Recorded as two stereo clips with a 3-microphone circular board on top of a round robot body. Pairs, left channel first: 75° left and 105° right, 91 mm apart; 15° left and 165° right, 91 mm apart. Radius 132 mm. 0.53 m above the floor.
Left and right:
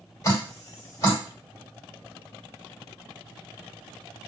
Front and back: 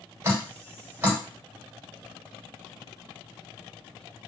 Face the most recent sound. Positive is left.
turn(degrees=130)